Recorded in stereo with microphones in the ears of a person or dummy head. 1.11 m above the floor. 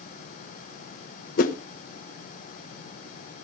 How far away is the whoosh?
About 0.9 m.